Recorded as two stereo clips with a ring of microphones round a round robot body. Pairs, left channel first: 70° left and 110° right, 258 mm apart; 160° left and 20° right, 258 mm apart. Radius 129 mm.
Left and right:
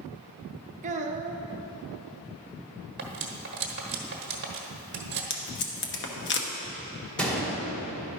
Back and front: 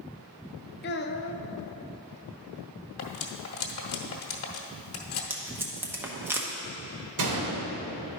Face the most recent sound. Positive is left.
turn(degrees=-20)